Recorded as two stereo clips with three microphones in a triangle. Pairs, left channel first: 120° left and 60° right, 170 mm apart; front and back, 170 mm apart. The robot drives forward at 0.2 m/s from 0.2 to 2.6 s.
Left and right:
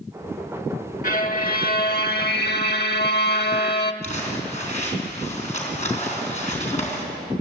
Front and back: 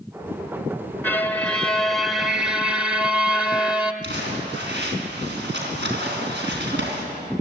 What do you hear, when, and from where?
1.0 s a violin: 80° left, 1.0 m; by 3.9 s 95° left, 1.0 m
4.0 s crumpling: 170° left, 4 m